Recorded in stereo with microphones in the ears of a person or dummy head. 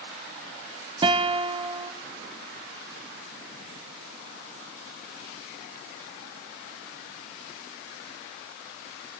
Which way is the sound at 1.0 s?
25° right (ahead or behind).